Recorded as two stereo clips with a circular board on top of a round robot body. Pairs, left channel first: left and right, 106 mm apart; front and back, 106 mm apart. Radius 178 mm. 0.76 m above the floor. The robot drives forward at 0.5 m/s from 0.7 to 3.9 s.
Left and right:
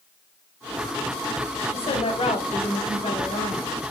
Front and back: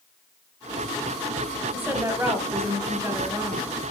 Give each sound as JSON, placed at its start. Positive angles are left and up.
{"t": 1.7, "sound": "a woman speaking", "azimuth_deg": 110, "distance_m": 4.0}